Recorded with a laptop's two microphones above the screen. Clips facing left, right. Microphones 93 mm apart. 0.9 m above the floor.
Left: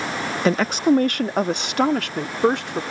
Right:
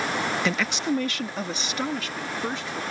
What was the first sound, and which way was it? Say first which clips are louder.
A woman speaking: left 8 dB; 40° left (ahead or behind).